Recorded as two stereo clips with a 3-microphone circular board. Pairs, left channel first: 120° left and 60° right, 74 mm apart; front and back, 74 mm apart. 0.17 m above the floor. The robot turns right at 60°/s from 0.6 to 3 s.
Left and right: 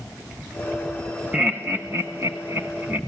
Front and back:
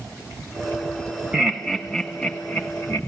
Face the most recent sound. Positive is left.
turn(degrees=-15)